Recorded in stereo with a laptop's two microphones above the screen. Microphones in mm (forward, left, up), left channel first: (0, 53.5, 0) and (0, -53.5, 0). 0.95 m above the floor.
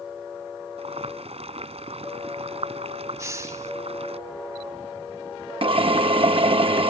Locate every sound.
0.8 s boiling: 60° right (ahead or behind)
3.2 s a hiss: 25° right (ahead or behind)
5.6 s a drill: 50° right (ahead or behind)